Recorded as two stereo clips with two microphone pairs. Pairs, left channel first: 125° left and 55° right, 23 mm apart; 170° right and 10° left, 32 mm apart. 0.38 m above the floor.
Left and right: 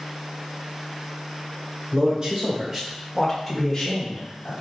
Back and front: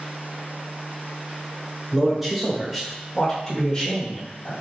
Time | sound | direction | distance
1.9 | a man speaking | 60° right | 1.7 m